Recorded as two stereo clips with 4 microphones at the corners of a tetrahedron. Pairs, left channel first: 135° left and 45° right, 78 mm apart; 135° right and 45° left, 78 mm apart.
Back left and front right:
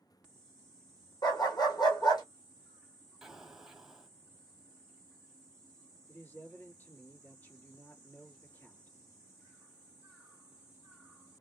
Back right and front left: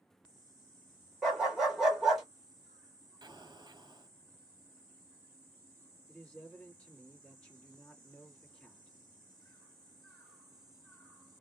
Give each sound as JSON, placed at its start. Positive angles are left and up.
{"t": 1.2, "sound": "a dog barking", "azimuth_deg": 125, "distance_m": 1.2}
{"t": 3.2, "sound": "an explosion", "azimuth_deg": 40, "distance_m": 0.8}
{"t": 6.1, "sound": "a man speaking", "azimuth_deg": 170, "distance_m": 1.7}